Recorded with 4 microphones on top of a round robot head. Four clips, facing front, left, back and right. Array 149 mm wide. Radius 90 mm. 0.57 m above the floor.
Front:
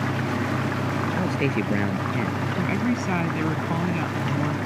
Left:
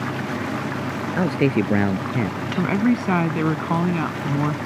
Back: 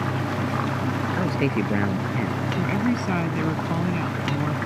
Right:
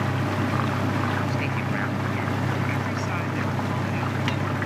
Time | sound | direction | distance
1.2 | a man speaking | 105° left | ?
2.6 | a woman speaking | 105° left | ?